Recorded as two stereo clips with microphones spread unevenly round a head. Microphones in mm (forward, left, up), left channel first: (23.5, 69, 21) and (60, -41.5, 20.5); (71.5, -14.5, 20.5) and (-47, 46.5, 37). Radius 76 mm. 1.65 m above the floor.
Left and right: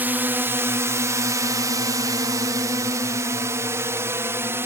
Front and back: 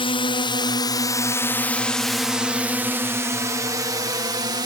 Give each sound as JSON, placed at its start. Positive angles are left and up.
{"t": 0.0, "sound": "a drone", "azimuth_deg": -5}